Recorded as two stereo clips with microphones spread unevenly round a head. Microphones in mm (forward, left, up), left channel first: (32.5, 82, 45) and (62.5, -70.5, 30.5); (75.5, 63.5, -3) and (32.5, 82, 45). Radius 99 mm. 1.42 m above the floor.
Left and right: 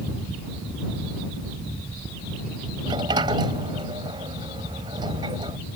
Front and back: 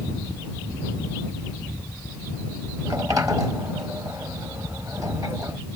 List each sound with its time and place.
2.9 s a sliding door: 150° right